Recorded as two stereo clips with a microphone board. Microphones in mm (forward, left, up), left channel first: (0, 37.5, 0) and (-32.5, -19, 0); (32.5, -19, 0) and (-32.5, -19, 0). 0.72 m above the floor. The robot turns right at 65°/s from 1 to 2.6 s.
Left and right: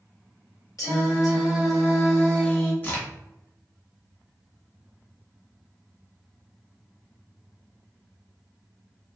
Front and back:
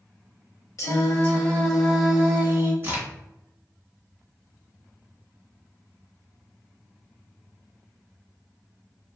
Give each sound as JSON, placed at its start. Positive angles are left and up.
{"t": 0.8, "sound": "singing", "azimuth_deg": 35, "distance_m": 1.1}
{"t": 2.8, "sound": "a crack", "azimuth_deg": 125, "distance_m": 1.4}